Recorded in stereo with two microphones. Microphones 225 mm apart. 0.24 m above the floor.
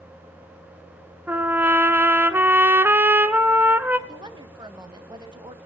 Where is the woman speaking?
20° right (ahead or behind), 1.3 m.